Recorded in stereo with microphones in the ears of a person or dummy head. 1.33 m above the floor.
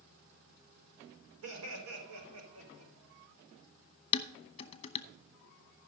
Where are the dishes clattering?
30° left (ahead or behind), 0.7 m.